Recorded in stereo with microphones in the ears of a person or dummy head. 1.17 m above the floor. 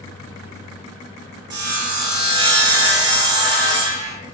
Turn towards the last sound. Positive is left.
turn(degrees=-25)  # may be behind; listen again after turning